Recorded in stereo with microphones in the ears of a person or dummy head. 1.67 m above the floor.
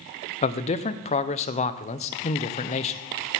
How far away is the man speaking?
About 0.6 m.